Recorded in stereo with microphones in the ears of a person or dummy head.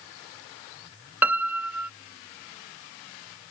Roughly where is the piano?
Centre.